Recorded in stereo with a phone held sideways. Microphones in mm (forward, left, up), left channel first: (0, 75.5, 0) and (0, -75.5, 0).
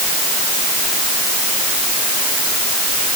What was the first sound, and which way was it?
Only background noise.